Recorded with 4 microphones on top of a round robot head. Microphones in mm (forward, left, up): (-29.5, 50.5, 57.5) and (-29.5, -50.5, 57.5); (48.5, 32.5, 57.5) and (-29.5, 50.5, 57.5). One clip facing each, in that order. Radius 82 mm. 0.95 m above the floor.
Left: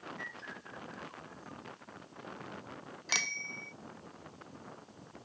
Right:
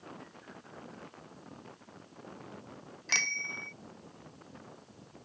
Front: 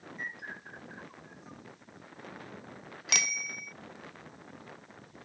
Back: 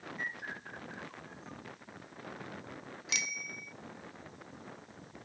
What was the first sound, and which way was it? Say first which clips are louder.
A bird: left 3 dB, even; 70° left.